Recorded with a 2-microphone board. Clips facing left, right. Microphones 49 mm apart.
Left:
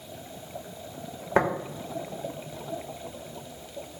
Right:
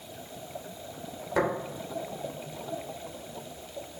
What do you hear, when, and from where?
1.4 s tapping: 35° left (ahead or behind), 1.5 m